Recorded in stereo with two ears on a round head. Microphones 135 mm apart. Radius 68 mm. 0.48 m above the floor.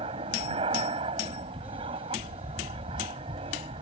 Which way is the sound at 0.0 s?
40° right (ahead or behind).